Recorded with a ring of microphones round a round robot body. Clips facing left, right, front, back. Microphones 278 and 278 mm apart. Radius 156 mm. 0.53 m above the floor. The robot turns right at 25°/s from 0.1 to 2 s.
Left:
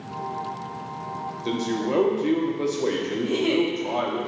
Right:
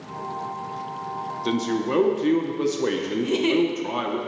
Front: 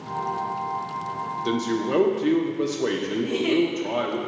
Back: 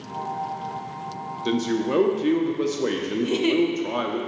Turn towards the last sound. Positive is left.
turn(degrees=-140)